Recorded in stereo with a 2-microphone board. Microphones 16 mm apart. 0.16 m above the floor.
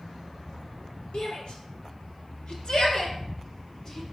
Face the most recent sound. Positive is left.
turn(degrees=20)  # may be behind; listen again after turning